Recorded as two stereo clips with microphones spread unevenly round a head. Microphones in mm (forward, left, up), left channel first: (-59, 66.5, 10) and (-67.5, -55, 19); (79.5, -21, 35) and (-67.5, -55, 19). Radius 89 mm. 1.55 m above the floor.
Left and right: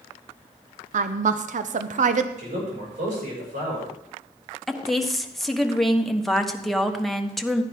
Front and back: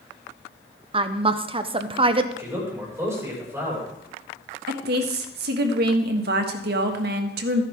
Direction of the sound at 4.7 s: 175° left.